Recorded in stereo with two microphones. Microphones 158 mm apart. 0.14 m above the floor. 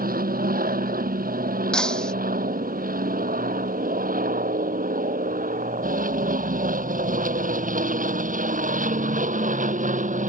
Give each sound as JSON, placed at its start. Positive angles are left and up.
{"t": 0.0, "sound": "an aircraft", "side_deg": -70}
{"t": 1.7, "sound": "breaking glass", "side_deg": 5}